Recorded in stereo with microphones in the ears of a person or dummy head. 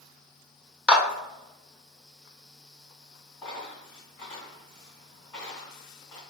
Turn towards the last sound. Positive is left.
turn(degrees=15)  # may be behind; listen again after turning